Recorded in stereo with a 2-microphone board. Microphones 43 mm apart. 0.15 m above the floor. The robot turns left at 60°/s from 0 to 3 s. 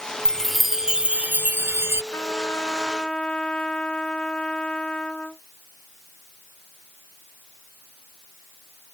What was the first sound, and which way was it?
A chime, 20° left.